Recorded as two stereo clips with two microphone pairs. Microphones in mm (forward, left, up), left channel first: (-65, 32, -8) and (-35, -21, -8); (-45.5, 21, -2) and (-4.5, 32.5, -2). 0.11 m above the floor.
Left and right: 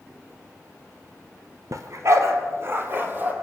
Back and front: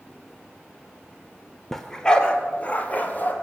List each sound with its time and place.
1.7 s a dog barking: 80° right, 1.2 m; by 3.3 s 120° right, 1.7 m